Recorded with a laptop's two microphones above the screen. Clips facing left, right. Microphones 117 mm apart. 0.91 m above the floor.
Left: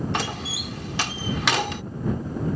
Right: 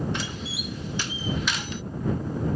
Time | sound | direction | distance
0.1 | a door slam | 80° left | ?